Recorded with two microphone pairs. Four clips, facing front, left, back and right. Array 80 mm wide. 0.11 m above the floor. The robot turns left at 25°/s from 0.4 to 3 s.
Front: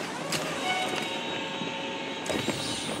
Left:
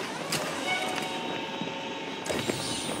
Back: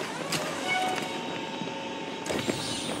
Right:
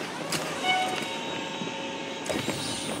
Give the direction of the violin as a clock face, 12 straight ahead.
3 o'clock.